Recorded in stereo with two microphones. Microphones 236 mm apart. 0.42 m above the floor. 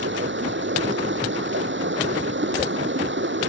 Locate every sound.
0.0 s running water: 50° right (ahead or behind)